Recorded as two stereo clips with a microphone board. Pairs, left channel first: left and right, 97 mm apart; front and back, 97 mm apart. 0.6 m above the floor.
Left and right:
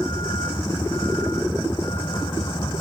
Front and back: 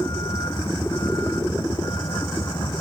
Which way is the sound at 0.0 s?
50° left.